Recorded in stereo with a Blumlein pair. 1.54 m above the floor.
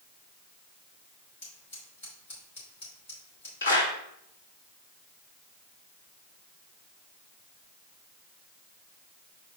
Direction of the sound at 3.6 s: 70° left.